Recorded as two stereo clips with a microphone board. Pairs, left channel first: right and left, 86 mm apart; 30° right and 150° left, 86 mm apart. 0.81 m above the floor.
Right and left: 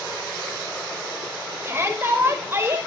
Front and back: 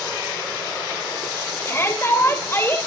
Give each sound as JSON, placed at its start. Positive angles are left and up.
{"t": 1.6, "sound": "a shout", "azimuth_deg": 30, "distance_m": 4.0}